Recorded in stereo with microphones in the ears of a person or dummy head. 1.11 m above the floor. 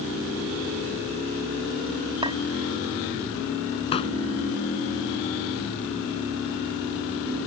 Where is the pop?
30° left (ahead or behind).